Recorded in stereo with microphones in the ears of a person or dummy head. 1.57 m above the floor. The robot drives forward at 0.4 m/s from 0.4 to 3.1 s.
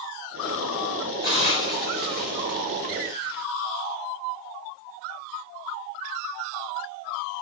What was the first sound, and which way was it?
A hiss, 25° right (ahead or behind).